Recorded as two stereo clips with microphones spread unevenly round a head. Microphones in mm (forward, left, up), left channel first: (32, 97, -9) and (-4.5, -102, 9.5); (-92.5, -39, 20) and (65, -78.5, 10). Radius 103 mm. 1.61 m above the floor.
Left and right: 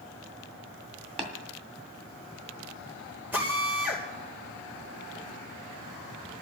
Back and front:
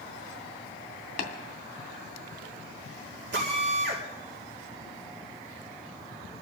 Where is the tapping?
160° right, 2.5 m.